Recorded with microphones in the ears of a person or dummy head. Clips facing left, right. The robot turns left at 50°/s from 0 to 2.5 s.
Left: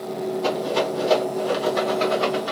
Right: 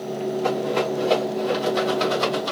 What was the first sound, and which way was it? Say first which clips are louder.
A rattle: even; 65° left (ahead or behind).